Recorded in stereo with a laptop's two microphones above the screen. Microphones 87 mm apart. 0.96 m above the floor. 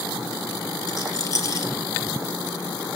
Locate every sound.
0.9 s a rattle: 45° left (ahead or behind), 3.5 m